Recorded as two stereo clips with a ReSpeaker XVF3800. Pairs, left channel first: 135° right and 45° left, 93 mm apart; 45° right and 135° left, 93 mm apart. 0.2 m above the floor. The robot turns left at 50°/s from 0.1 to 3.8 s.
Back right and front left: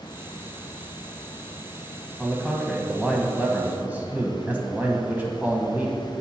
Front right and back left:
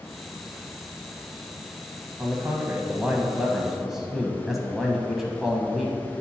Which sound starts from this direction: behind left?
A man speaking, at 2.2 s.